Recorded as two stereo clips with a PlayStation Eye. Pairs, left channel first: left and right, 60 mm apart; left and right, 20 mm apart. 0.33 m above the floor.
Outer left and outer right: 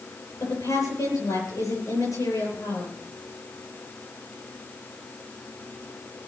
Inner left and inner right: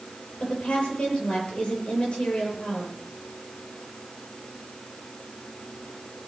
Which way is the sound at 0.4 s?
60° left (ahead or behind).